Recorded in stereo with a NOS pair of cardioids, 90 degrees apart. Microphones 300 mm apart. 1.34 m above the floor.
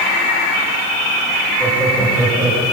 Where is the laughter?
5° left, 7 m; by 2.6 s straight ahead, 7 m.